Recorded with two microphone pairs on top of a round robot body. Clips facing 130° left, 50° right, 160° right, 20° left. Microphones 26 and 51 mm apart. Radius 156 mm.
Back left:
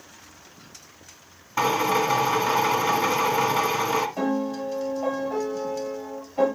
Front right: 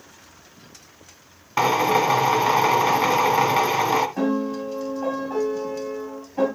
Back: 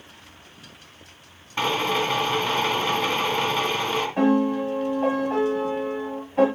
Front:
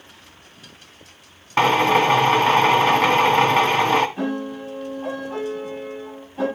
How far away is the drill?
About 1.8 m.